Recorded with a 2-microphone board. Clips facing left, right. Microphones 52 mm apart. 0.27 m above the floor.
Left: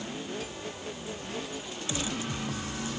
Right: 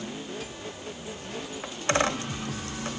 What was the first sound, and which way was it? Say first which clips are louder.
A dropped coin: right 9 dB; 70° right (ahead or behind).